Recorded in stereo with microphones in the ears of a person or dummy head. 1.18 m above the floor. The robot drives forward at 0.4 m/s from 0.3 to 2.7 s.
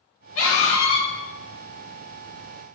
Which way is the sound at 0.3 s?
65° left (ahead or behind).